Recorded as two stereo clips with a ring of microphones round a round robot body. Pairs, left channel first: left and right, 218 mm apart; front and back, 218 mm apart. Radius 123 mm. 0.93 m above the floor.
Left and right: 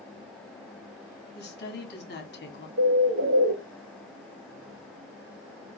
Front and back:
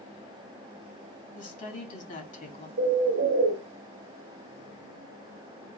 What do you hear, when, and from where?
1.4 s a woman speaking: 50° left, 2 m
2.8 s a bird: 130° right, 0.9 m